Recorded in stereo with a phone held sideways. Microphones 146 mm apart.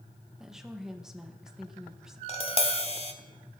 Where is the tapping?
40° left (ahead or behind), 0.8 m.